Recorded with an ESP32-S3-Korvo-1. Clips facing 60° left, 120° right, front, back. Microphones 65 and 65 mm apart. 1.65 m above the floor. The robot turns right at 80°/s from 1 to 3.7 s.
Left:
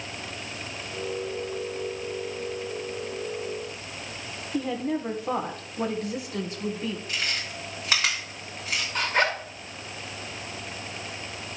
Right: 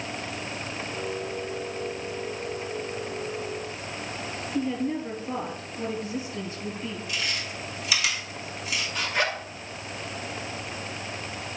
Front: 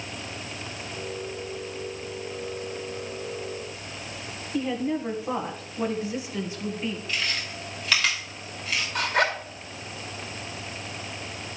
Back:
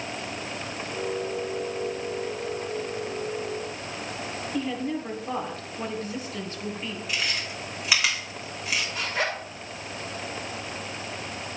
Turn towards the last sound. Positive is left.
turn(degrees=20)